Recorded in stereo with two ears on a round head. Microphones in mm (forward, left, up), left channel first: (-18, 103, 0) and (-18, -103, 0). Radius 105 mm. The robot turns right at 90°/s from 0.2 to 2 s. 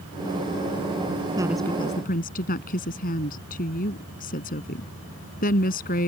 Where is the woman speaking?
20° right; by 6.1 s 40° left.